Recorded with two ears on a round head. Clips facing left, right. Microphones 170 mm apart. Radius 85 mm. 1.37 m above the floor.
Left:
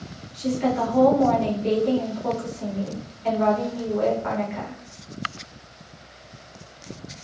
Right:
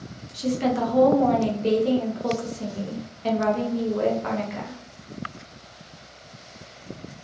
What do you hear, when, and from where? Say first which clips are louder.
0.3 s a woman speaking: even; 55° right (ahead or behind), 0.8 m